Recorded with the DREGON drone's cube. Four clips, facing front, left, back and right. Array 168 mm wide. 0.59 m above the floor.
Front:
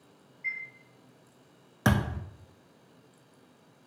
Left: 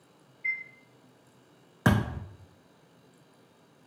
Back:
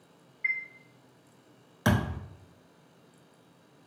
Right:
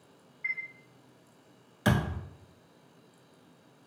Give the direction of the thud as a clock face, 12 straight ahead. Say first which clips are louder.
Left 2 dB, even; 10 o'clock.